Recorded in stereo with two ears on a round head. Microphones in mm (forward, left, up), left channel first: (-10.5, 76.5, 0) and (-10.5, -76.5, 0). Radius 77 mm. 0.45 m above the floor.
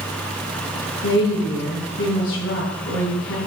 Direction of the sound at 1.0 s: 75° left (ahead or behind).